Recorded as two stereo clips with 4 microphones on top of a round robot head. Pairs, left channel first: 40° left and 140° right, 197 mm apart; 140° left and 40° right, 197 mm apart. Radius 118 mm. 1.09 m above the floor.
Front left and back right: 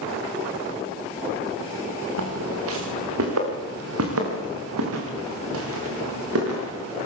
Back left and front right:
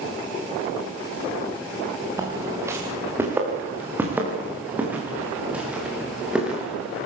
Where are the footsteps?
115° right, 6.5 m; by 7.1 s 130° right, 9 m.